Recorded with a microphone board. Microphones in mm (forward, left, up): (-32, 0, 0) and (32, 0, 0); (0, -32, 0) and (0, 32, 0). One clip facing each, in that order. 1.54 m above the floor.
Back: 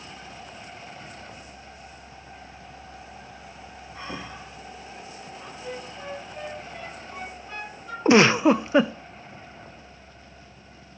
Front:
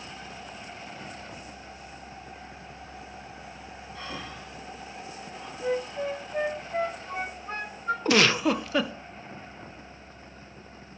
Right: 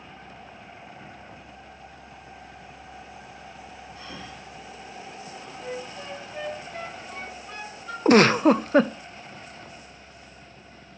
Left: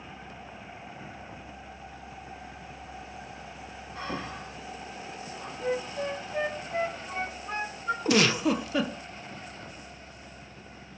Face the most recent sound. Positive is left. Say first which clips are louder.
# back 7 dB, right 8 dB
turn(degrees=-120)